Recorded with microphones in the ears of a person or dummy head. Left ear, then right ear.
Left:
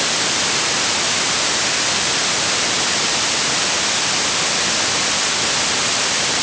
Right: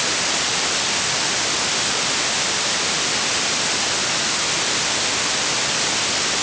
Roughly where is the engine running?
I don't hear an engine running.